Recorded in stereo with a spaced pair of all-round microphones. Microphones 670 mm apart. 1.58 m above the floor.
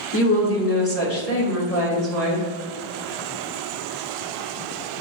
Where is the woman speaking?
20° left (ahead or behind), 1.0 m.